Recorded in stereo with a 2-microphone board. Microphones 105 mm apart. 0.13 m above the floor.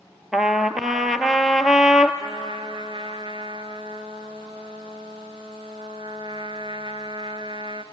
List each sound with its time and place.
0.3 s a trumpet: 5° right (ahead or behind), 0.7 m
2.2 s a trumpet: 50° right (ahead or behind), 0.7 m